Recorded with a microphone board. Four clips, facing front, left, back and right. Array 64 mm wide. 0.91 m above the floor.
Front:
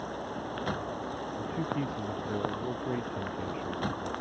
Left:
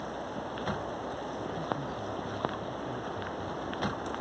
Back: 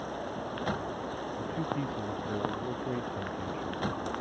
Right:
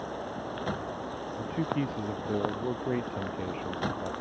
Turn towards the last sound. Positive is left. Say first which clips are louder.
# right 7 dB, front 1 dB
turn(degrees=-80)